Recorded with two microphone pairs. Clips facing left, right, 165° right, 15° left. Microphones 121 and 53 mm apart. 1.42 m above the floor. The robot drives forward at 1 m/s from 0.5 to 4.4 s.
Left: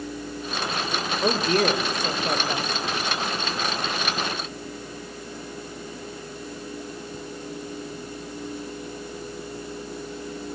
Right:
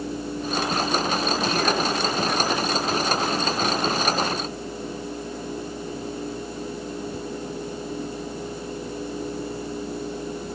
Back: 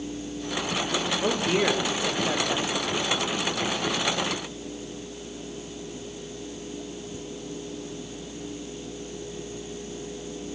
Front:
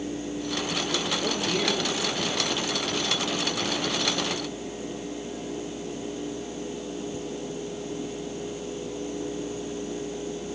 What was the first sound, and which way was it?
A woman speaking, 130° left.